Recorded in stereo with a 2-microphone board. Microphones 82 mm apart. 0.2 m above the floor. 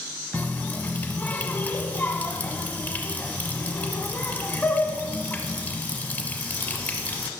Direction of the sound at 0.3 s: 25° left (ahead or behind).